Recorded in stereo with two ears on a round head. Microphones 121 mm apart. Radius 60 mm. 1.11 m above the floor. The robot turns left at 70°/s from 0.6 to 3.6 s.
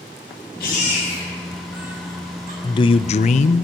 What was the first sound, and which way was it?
A baby crying, 80° left.